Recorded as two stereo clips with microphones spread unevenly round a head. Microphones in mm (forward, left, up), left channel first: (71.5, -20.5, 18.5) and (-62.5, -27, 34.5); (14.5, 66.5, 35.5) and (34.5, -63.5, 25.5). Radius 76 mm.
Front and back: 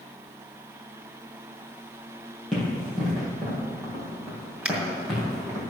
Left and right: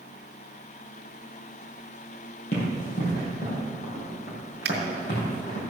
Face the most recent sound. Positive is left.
turn(degrees=-95)